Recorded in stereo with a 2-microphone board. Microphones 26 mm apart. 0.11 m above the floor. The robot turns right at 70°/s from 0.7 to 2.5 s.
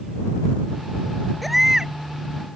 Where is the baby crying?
Straight behind; by 1.9 s 140° right.